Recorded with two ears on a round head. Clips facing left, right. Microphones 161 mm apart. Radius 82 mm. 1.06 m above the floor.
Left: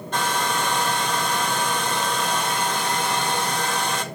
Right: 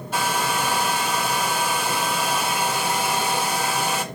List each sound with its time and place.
0.1 s a hair dryer: 5° right (ahead or behind), 1.4 m